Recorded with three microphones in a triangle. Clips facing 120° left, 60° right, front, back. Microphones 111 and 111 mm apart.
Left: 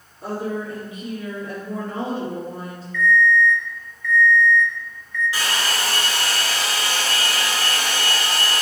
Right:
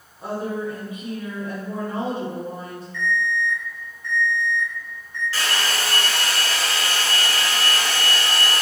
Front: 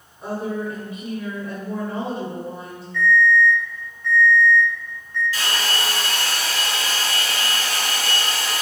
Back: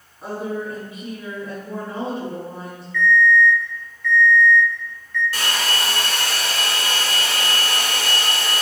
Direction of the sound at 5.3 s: 170° right.